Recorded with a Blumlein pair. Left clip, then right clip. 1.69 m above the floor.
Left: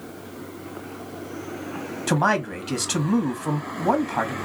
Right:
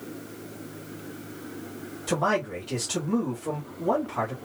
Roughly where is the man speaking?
Ahead left.